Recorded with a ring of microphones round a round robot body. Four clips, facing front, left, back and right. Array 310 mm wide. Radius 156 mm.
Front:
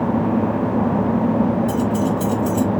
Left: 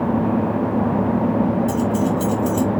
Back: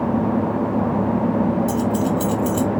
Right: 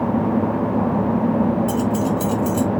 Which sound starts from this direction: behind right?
Keys jangling, at 1.7 s.